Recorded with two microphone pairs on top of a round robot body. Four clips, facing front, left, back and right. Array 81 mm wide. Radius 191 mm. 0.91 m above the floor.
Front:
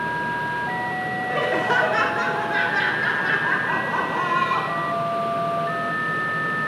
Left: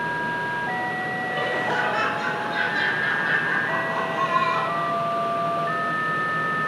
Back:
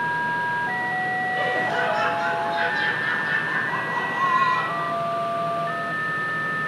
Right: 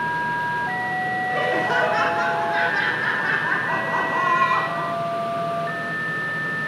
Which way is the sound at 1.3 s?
20° right.